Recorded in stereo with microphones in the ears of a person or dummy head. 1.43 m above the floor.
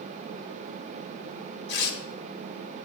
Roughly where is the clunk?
No clunk in this recording.